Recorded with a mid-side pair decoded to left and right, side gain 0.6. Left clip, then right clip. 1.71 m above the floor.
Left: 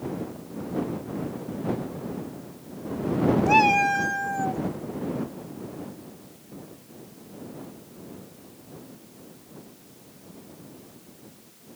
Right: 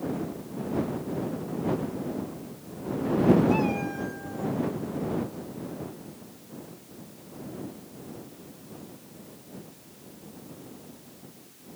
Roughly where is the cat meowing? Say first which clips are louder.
Left 9 dB; ahead left.